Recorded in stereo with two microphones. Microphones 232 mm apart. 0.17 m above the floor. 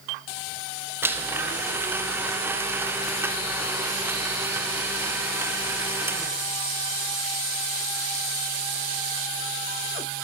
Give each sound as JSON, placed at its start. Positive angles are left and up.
{"t": 1.0, "sound": "a blender", "side_deg": -10, "distance_m": 0.8}